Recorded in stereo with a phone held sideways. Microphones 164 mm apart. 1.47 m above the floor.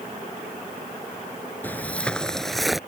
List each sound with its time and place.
1.6 s footsteps: 10° left (ahead or behind); by 2.8 s centre (ahead or behind)